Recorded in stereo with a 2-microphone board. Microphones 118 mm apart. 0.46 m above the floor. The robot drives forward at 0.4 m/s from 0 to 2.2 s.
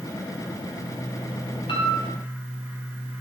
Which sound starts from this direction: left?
A piano, at 1.7 s.